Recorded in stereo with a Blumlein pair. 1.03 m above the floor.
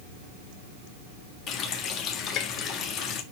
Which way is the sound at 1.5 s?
30° left.